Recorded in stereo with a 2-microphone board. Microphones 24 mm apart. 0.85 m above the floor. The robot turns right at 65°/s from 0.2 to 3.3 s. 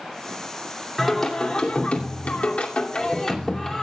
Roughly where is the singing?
Ahead.